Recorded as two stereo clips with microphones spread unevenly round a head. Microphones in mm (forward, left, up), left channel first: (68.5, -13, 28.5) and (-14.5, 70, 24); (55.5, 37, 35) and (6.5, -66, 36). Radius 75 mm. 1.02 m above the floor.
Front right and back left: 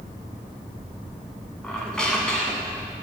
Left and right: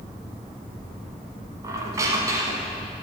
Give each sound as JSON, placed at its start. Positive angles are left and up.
{"t": 1.6, "sound": "a squeak", "azimuth_deg": -115, "distance_m": 0.9}